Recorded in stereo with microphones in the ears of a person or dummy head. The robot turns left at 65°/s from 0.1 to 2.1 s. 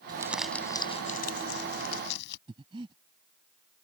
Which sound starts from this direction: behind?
Crumpling, at 0.1 s.